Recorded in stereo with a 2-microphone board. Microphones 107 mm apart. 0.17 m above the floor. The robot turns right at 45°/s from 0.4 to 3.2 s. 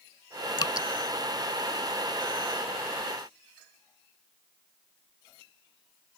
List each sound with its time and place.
0.6 s dripping: 45° left (ahead or behind); by 0.9 s 35° left (ahead or behind)